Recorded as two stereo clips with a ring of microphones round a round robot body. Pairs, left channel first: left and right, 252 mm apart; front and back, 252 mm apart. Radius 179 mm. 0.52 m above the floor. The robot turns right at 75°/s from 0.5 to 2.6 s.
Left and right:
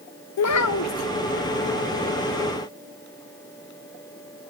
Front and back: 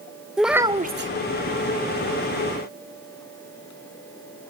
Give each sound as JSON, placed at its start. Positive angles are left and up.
{"t": 0.4, "sound": "a child speaking", "azimuth_deg": 95, "distance_m": 0.6}